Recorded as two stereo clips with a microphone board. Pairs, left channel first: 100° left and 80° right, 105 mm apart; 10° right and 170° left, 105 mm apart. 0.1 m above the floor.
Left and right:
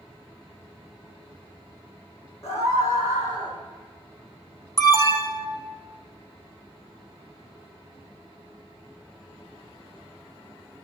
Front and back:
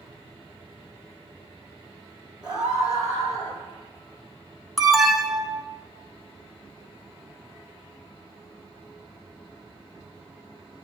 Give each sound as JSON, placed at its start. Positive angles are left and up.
{"t": 2.4, "sound": "a scream", "azimuth_deg": 45, "distance_m": 4.0}
{"t": 4.8, "sound": "an alarm", "azimuth_deg": 80, "distance_m": 0.9}